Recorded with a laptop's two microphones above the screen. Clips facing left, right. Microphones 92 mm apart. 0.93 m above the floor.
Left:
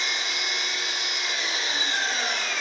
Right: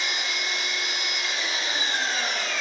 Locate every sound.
0.0 s an engine running: centre (ahead or behind), 1.6 m